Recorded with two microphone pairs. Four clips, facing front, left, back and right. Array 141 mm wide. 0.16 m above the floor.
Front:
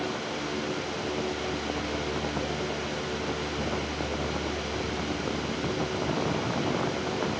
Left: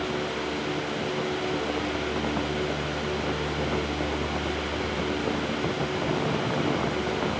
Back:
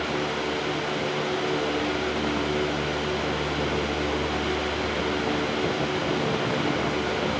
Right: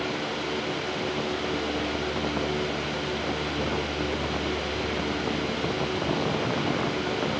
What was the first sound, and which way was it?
Only background noise.